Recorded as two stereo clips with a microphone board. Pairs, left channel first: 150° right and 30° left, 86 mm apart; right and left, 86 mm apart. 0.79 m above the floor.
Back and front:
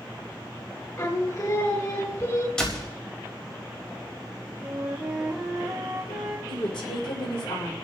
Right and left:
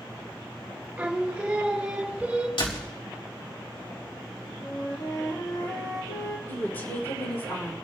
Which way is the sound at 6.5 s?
155° right.